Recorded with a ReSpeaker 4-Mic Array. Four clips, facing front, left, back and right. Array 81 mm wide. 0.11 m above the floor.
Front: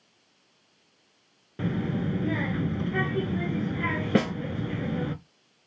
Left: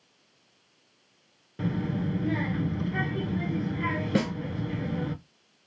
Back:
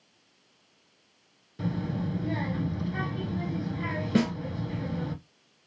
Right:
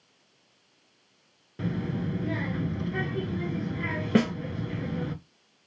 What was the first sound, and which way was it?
A child speaking, 5° left.